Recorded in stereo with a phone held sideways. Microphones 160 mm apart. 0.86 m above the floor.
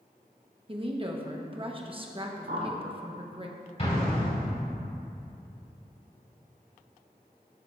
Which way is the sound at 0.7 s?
35° right (ahead or behind).